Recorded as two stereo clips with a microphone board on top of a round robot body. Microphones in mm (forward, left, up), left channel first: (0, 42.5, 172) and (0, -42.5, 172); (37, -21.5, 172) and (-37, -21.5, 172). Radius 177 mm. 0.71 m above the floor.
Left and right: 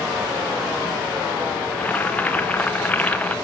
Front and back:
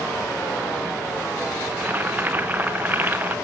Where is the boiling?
145° left, 1.2 m.